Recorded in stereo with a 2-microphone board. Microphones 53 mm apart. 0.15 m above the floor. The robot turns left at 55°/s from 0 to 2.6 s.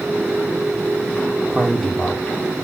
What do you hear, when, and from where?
1.5 s a man speaking: 165° right, 4 m; by 2.4 s 150° left, 4 m